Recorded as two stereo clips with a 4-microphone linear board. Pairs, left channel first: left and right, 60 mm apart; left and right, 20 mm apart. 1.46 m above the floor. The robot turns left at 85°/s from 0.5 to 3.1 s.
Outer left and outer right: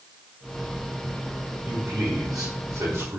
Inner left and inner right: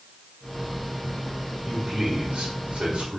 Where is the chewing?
No chewing in this recording.